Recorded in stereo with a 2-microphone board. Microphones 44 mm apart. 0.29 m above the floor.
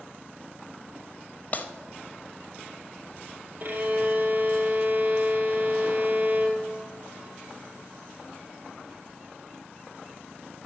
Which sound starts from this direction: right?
A violin, at 3.6 s.